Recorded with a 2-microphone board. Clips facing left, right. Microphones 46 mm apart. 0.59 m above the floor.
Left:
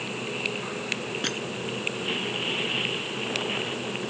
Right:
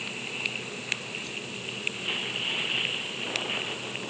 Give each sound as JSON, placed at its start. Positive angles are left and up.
{"t": 1.2, "sound": "crushing", "side_deg": 70}